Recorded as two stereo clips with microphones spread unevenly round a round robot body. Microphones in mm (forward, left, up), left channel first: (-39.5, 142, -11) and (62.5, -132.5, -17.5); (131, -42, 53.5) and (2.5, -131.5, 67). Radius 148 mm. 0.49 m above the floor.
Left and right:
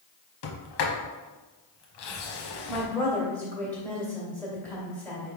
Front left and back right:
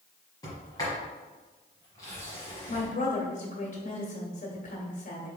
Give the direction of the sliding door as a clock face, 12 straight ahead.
8 o'clock.